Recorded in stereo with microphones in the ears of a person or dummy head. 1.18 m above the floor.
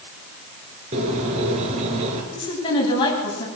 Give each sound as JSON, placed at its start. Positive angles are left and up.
{"t": 0.9, "sound": "a bird", "side_deg": -40, "distance_m": 4.5}
{"t": 2.3, "sound": "a woman speaking", "side_deg": 25, "distance_m": 9.0}